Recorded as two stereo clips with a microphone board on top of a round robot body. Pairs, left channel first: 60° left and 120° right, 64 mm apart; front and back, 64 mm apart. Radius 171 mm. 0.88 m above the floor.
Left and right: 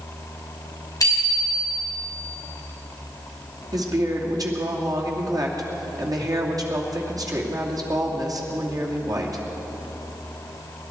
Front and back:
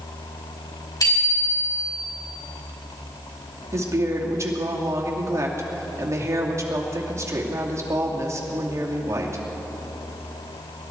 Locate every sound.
1.0 s a bicycle bell: 20° left, 5.5 m
3.7 s a woman speaking: 140° right, 2.5 m